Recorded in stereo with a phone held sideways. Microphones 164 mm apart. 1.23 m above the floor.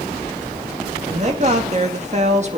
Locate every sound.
1.1 s a woman speaking: 45° right (ahead or behind), 2.5 m